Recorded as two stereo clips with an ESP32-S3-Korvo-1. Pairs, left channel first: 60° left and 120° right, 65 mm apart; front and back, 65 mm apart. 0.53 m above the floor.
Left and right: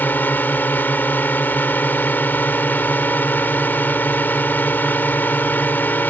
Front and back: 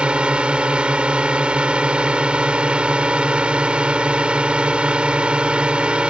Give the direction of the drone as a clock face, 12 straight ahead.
8 o'clock.